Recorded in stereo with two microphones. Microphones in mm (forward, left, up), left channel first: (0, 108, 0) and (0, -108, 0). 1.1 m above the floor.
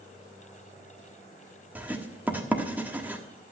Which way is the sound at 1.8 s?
10° right (ahead or behind).